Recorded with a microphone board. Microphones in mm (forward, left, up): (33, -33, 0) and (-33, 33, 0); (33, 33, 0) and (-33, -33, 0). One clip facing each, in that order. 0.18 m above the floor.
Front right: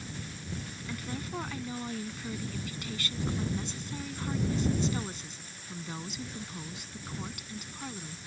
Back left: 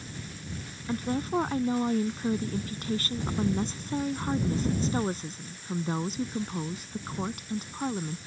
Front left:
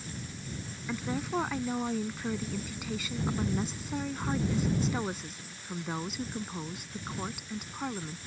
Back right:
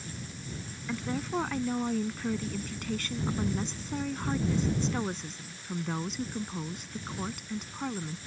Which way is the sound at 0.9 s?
125° left.